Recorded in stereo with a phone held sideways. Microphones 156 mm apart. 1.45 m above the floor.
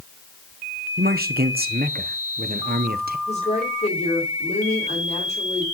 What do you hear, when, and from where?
1.0 s a man speaking: 75° right (ahead or behind), 1.1 m
3.3 s a woman speaking: 45° left (ahead or behind), 5 m